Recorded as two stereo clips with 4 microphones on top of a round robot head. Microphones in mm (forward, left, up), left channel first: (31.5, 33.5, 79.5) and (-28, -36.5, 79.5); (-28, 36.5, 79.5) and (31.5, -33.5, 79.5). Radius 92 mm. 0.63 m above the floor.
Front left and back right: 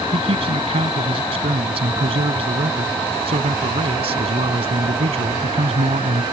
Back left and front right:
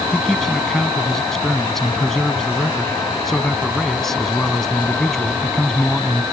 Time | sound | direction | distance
0.1 | a man speaking | 145° right | ?